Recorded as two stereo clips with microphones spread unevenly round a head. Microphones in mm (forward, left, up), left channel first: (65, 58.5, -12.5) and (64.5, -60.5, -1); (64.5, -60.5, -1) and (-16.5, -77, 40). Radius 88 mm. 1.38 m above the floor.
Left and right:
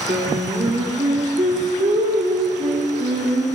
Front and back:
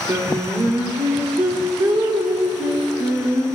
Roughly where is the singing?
Behind right.